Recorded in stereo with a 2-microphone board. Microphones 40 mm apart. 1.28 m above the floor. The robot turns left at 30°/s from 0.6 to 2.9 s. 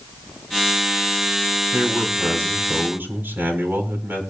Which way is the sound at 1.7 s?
80° right.